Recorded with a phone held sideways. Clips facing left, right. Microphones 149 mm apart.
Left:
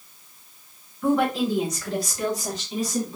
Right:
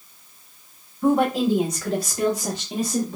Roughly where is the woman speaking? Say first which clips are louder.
Right 3 dB; right.